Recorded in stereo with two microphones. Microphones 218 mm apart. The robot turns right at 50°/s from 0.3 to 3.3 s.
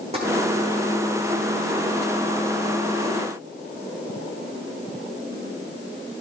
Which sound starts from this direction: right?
Tapping, at 0.1 s.